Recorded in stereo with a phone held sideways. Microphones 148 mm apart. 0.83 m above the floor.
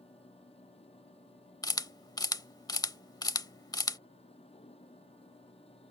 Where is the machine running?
40° left (ahead or behind).